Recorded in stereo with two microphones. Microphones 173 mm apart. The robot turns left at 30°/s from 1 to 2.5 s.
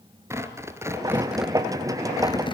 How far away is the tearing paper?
About 1.7 m.